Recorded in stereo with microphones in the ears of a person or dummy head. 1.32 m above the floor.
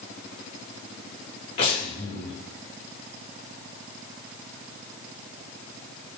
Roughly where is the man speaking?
No man speaking in this recording.